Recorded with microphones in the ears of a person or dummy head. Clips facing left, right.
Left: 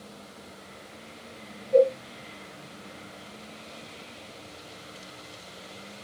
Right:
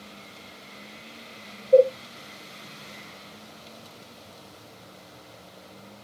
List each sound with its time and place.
1.7 s a cowbell: 50° right (ahead or behind), 1.1 m